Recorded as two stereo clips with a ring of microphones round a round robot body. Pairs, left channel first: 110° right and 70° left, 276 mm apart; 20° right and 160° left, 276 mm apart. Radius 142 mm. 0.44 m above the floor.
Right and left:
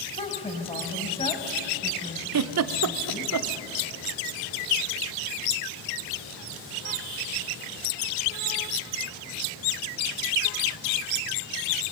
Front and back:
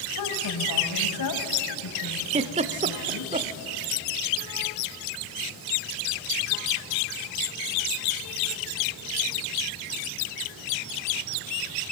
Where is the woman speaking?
40° right, 3 m.